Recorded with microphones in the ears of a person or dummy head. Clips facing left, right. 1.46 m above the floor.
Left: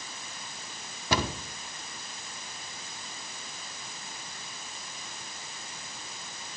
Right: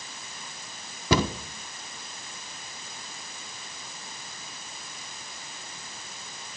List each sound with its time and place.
1.1 s a cupboard door: 80° right, 1.2 m